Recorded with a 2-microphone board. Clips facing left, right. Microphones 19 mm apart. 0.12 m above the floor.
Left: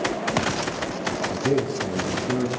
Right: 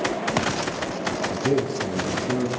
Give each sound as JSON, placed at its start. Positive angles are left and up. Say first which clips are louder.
{"t": 1.3, "sound": "a man speaking", "louder": "even", "side_deg": 5, "distance_m": 2.0}